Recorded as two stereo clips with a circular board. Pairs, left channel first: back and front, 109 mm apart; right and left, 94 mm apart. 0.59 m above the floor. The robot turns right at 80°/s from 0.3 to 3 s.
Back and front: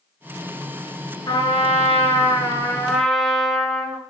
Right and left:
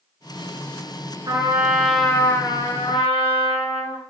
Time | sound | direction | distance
1.3 | a trumpet | 130° left | 2.5 m